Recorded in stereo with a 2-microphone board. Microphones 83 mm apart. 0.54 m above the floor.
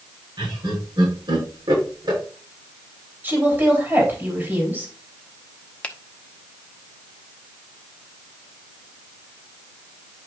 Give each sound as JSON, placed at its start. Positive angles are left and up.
{"t": 0.4, "sound": "laughter", "side_deg": -65, "distance_m": 6.5}
{"t": 3.2, "sound": "a woman speaking", "side_deg": -25, "distance_m": 3.5}
{"t": 5.8, "sound": "a finger snap", "side_deg": 15, "distance_m": 0.8}